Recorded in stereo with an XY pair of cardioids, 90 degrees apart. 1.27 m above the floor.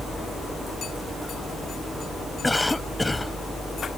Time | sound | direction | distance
0.0 | a fan | 25° right | ?
2.4 | a cough | 10° left | ?